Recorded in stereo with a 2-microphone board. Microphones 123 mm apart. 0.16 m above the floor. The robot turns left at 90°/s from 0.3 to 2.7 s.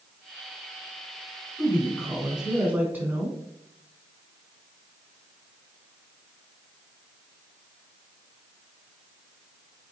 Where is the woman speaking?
20° left (ahead or behind), 1.1 m; by 3.4 s 15° right (ahead or behind), 1.1 m.